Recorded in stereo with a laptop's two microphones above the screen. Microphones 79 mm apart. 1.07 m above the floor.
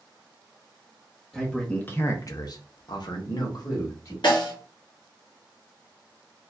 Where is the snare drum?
80° left, 1.9 m.